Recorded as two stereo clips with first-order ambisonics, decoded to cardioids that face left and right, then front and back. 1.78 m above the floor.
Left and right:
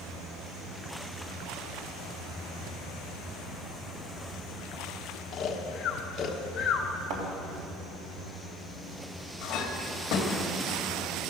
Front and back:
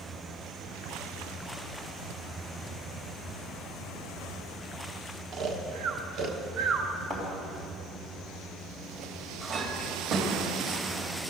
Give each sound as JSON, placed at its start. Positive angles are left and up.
{"t": 5.3, "sound": "snoring", "azimuth_deg": 145, "distance_m": 1.2}
{"t": 7.1, "sound": "a thud", "azimuth_deg": -100, "distance_m": 3.0}
{"t": 9.4, "sound": "a clink", "azimuth_deg": 130, "distance_m": 2.0}